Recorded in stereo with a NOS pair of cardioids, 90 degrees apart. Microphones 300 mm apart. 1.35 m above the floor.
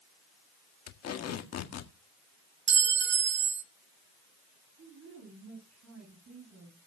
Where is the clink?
40° right, 1.1 m.